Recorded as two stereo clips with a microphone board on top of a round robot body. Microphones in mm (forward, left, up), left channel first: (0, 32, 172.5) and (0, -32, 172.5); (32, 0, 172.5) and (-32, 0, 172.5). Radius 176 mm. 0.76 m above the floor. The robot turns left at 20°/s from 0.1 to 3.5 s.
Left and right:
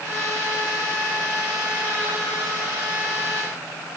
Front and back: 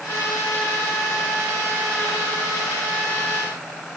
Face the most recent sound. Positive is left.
No sound to turn to.